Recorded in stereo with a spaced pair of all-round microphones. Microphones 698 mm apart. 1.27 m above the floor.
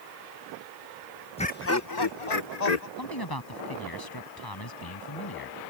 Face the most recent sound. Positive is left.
turn(degrees=30)  # may be behind; listen again after turning